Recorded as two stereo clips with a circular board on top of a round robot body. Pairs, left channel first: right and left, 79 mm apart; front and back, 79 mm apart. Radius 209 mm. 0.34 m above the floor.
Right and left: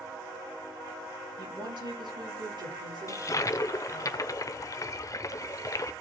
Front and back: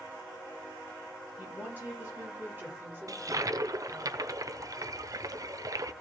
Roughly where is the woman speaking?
Left.